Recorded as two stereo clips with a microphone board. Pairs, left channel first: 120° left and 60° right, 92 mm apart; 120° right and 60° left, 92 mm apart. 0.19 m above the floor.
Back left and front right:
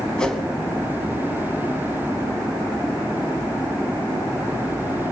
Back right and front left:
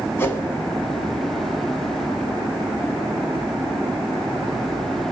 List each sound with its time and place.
0.2 s a whoosh: 165° right, 0.9 m